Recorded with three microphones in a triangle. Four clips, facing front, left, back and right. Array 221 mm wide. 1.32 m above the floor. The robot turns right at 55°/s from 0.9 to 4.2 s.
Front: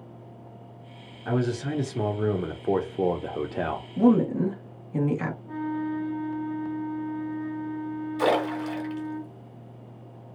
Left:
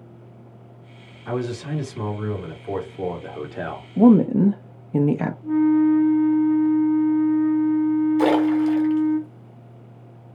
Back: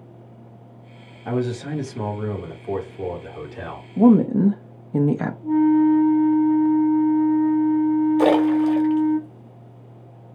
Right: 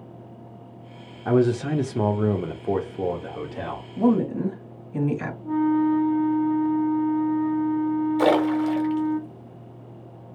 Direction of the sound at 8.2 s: 170° right.